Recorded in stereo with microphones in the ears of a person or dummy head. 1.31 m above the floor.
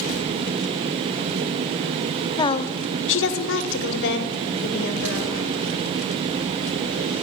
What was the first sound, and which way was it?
A woman speaking, 20° left (ahead or behind).